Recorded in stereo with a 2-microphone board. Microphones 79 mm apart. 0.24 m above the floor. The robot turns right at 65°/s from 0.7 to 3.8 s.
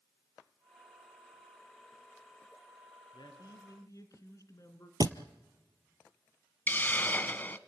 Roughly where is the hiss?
Left.